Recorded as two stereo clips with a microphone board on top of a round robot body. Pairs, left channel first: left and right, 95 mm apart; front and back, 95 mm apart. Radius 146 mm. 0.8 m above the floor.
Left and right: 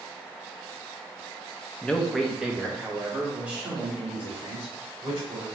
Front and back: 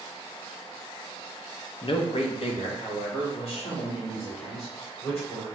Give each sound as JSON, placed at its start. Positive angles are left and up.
{"t": 1.8, "sound": "a man speaking", "azimuth_deg": 10, "distance_m": 0.6}